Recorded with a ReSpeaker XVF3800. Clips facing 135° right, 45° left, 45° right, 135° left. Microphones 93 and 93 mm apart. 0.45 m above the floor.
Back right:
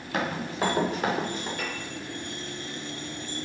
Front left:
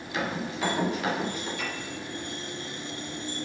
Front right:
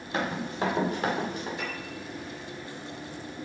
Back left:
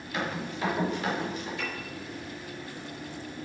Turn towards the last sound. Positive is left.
turn(degrees=-95)